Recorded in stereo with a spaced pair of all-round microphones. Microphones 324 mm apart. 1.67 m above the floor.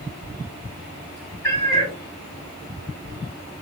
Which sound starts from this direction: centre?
A cat meowing, at 1.4 s.